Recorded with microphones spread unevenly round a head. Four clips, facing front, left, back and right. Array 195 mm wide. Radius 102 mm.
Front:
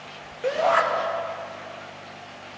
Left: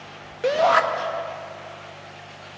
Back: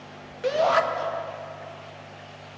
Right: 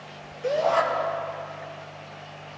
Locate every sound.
0.4 s a shout: 85° left, 1.7 m